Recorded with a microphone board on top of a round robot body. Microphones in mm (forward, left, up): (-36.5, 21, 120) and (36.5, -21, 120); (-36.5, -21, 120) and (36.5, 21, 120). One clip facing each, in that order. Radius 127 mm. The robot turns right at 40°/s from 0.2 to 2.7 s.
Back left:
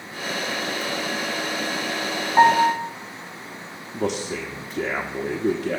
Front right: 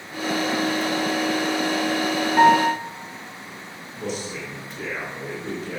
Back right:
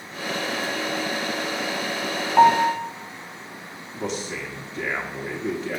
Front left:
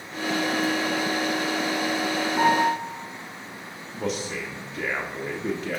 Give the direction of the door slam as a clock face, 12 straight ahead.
I don't hear a door slam.